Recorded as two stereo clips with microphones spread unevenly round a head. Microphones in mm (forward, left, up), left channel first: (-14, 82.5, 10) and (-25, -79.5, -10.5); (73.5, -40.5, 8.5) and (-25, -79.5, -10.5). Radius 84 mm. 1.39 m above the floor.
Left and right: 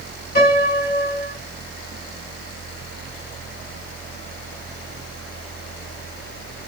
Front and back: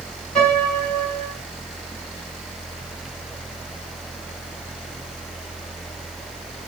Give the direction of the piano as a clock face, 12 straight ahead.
8 o'clock.